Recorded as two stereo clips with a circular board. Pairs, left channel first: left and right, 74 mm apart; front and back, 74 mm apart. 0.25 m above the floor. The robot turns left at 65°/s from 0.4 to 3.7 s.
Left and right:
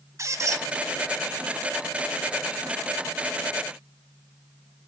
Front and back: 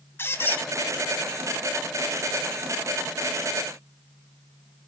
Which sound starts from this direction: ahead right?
A squeak, at 0.2 s.